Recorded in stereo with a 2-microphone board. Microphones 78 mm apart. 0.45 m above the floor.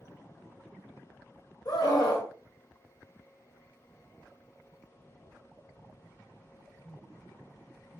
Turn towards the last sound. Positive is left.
turn(degrees=50)  # may be behind; listen again after turning